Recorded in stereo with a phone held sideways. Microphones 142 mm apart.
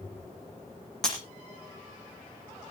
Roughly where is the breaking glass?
Centre.